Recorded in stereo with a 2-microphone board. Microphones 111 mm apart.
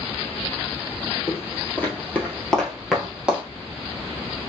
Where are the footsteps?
20° left (ahead or behind), 1.9 m; by 3.4 s 10° right (ahead or behind), 1.3 m.